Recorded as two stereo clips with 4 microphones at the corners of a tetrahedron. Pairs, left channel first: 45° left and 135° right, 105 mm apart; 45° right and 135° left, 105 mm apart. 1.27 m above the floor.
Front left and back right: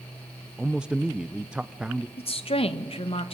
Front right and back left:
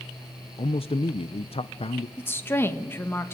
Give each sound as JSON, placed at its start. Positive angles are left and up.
{"t": 0.6, "sound": "a man speaking", "azimuth_deg": -55, "distance_m": 0.5}
{"t": 2.2, "sound": "a woman speaking", "azimuth_deg": 25, "distance_m": 1.5}